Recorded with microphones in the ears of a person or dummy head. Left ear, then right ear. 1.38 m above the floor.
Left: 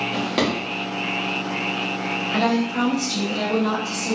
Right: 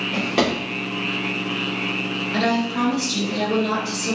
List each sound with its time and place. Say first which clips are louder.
0.1 s a drawer: right 4 dB; 5° left (ahead or behind), 1.0 m
2.3 s a woman speaking: right 1 dB; 30° left (ahead or behind), 1.1 m